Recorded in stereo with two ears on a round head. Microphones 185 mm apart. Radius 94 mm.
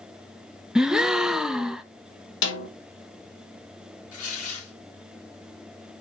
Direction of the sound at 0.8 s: 5° right (ahead or behind).